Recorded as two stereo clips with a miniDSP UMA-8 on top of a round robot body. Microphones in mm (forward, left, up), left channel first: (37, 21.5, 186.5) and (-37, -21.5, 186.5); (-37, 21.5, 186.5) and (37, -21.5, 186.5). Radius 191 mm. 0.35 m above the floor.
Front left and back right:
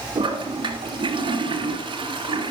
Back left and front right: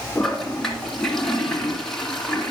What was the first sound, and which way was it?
A toilet flushing, 125° right.